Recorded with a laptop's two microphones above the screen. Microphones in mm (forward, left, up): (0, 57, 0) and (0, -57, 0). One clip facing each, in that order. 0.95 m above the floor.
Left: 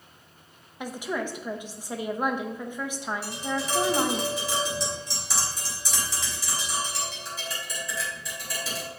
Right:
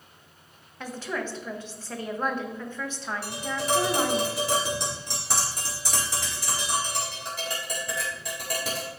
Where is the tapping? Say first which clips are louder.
Right 3 dB; 65° right (ahead or behind), 3.5 m.